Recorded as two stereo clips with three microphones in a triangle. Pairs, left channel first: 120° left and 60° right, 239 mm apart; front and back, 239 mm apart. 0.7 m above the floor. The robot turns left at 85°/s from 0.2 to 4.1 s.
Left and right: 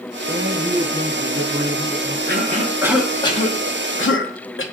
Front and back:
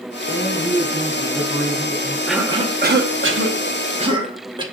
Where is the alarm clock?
No alarm clock in this recording.